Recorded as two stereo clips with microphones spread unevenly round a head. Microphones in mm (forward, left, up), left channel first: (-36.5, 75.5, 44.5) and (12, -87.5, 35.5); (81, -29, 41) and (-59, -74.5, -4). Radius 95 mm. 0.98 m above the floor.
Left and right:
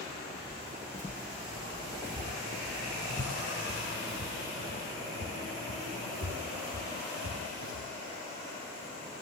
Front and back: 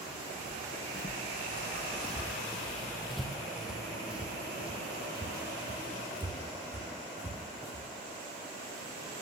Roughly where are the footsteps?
Ahead left.